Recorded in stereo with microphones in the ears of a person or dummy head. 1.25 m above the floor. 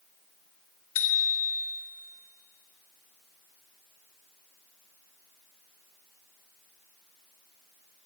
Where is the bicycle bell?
80° left, 2 m.